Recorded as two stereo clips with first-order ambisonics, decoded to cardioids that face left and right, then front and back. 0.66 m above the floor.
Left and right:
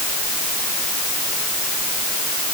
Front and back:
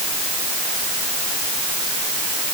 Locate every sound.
Only background noise.